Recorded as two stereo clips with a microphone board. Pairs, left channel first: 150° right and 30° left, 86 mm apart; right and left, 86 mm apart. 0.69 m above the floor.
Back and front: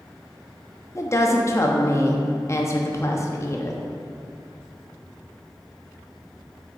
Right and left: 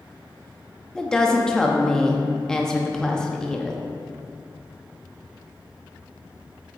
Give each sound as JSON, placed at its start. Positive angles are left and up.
{"t": 0.9, "sound": "a woman speaking", "azimuth_deg": -170, "distance_m": 0.8}